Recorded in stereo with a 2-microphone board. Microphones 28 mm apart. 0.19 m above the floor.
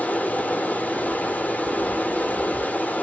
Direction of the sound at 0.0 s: 80° left.